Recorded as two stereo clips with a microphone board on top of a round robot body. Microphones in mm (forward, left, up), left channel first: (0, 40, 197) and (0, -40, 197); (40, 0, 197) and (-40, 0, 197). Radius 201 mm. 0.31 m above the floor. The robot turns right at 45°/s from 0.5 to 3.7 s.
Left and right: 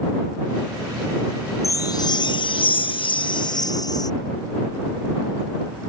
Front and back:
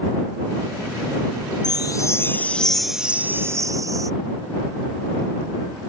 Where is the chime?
35° left; by 4.1 s 130° left.